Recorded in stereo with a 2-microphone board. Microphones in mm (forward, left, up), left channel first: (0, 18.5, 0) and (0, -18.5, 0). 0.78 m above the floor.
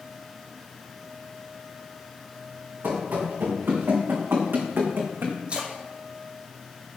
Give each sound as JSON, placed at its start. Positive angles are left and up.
{"t": 2.8, "sound": "running footsteps", "side_deg": -65, "distance_m": 4.5}
{"t": 5.5, "sound": "a splash", "side_deg": -35, "distance_m": 2.5}